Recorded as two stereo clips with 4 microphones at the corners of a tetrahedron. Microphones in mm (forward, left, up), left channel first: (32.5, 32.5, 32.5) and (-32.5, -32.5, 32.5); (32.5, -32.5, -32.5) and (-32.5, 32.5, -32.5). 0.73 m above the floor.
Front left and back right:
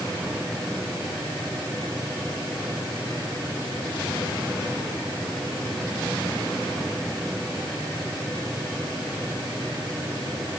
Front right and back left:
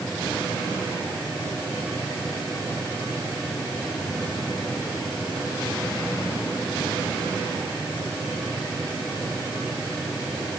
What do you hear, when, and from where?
Only background noise.